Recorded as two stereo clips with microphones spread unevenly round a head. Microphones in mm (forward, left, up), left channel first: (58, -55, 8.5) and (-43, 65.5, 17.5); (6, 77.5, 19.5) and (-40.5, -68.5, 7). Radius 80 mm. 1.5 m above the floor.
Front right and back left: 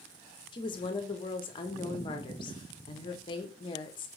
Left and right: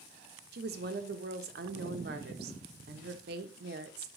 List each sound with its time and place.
0.5 s a woman speaking: 110° right, 0.6 m